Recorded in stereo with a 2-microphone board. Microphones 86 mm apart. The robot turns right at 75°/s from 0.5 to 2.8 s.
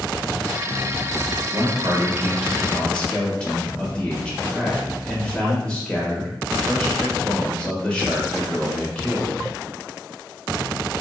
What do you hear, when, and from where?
1.5 s a man speaking: 80° right, 1.2 m; by 9.4 s 15° left, 1.2 m